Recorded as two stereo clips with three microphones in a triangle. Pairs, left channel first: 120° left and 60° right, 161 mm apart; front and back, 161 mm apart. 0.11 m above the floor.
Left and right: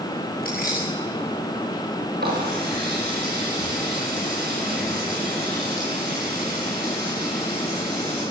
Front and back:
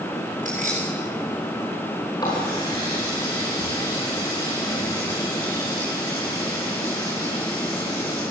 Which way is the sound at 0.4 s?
140° left.